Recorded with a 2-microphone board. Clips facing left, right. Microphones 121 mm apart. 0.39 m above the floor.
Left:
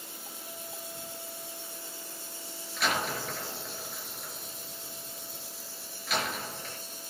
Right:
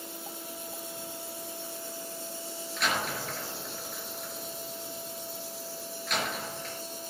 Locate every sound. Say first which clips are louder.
2.8 s a door slam: left 1 dB; centre (ahead or behind), 5 m